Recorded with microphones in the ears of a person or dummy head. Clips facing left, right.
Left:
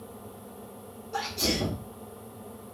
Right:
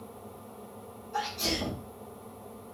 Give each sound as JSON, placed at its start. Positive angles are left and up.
{"t": 1.1, "sound": "a sneeze", "side_deg": 85, "distance_m": 1.0}